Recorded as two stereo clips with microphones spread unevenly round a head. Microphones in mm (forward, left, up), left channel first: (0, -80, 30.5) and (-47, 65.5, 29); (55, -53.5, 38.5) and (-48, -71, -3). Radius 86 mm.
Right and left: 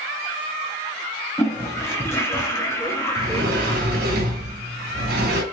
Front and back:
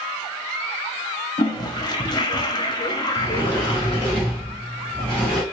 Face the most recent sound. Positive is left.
turn(degrees=100)